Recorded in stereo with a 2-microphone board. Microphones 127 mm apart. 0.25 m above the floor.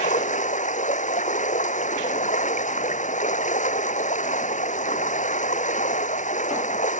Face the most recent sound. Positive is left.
turn(degrees=75)  # may be behind; listen again after turning